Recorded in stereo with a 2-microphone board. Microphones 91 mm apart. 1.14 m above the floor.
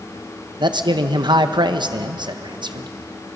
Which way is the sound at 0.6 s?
55° right (ahead or behind).